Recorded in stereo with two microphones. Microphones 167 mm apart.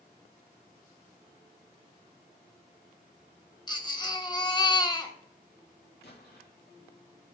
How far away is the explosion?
About 3 m.